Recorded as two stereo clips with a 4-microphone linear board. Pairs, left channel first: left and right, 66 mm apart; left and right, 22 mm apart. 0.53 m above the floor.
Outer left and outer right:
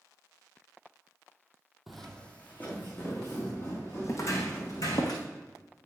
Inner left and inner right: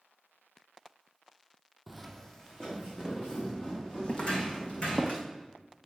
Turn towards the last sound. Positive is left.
turn(degrees=75)  # may be behind; listen again after turning